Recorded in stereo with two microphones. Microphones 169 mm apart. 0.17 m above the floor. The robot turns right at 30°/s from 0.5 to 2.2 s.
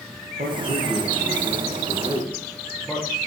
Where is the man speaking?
45° right, 5.5 m; by 3.1 s 5° left, 5.5 m.